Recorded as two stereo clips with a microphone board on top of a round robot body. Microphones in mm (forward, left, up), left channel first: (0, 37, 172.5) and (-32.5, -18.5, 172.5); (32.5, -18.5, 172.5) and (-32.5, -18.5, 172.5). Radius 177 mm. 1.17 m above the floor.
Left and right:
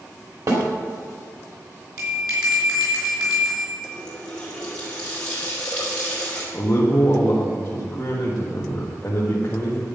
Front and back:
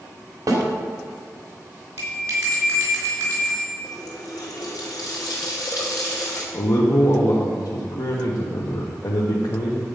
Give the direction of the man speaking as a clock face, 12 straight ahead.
12 o'clock.